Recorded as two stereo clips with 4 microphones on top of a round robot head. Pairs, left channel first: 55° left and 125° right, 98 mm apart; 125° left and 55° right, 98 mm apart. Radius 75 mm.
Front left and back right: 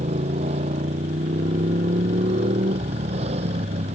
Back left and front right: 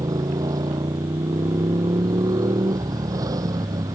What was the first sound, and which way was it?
A motorcycle, 110° right.